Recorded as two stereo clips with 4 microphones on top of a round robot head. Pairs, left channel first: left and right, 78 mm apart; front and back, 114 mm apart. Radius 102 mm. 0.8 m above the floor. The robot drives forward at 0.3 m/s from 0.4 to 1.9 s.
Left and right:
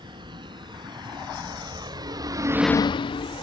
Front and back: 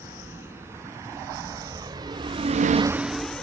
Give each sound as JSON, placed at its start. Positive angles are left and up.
{"t": 0.0, "sound": "a vehicle", "azimuth_deg": -110}